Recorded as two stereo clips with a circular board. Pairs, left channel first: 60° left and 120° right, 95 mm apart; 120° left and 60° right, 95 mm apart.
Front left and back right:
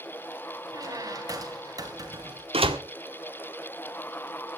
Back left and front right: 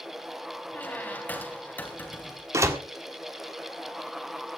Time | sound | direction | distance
0.7 | a squeak | 170° right | 3.5 m
2.5 | a door slam | 120° right | 1.8 m